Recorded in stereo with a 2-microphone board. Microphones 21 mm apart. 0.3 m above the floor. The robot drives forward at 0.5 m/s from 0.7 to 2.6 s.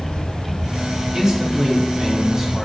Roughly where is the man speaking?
Right.